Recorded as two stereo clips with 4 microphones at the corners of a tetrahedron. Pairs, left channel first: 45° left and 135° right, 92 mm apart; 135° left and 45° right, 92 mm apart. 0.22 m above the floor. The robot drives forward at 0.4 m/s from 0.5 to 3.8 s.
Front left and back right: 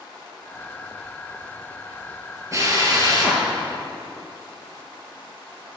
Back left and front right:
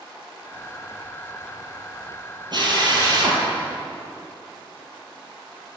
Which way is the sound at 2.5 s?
80° right.